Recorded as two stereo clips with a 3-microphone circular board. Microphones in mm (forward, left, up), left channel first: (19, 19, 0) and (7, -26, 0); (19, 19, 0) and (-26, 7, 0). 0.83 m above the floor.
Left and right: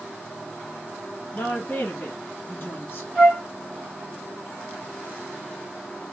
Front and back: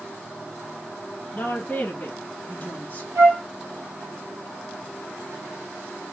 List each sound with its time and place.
1.3 s a woman speaking: 65° left, 1.1 m
3.1 s a flute: 150° left, 1.6 m